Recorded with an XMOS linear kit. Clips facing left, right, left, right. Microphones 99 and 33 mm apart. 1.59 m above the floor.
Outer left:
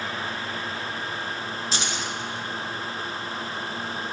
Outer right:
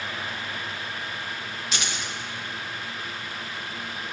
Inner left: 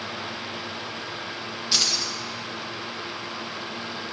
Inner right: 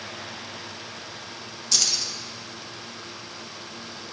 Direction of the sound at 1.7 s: 30° left (ahead or behind).